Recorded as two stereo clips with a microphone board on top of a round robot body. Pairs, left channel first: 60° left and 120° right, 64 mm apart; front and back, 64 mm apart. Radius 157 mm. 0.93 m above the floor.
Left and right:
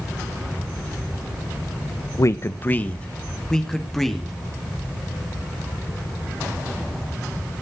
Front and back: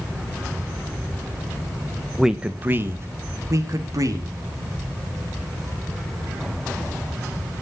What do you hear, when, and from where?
2.2 s a man speaking: 95° left, 0.8 m; by 4.3 s 150° left, 2 m